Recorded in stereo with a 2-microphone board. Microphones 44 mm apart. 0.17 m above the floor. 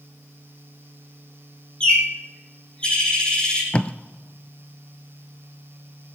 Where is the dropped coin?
No dropped coin in this recording.